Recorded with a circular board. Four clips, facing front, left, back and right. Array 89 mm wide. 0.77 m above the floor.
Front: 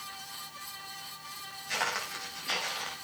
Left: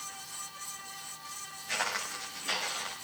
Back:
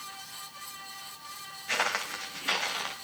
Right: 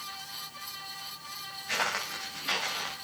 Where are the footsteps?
165° right, 6.5 m.